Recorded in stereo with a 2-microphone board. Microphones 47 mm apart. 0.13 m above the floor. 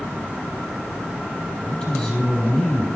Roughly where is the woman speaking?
Centre.